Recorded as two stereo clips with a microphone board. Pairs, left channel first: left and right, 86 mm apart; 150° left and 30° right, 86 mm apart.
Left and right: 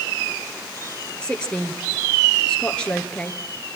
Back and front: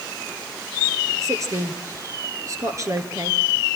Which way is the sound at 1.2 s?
15° left.